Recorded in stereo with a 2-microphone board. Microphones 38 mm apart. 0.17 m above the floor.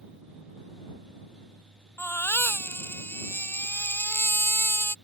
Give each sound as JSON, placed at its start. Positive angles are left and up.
{"t": 2.0, "sound": "a baby crying", "side_deg": 70}